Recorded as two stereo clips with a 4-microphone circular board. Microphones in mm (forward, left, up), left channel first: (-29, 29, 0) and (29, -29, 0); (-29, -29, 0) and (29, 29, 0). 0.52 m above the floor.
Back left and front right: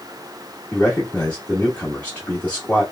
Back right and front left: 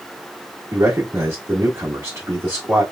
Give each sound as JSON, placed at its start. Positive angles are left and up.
{"t": 0.7, "sound": "a man speaking", "azimuth_deg": 75, "distance_m": 1.3}